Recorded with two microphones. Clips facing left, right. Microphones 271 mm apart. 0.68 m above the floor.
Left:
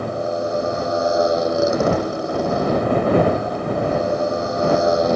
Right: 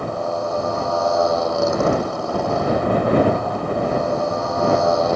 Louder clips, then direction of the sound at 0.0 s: Left 1 dB; 20° left (ahead or behind).